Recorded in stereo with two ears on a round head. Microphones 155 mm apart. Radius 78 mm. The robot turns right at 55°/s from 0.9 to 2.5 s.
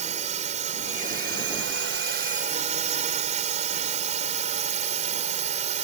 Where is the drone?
130° right; by 5.9 s 45° right.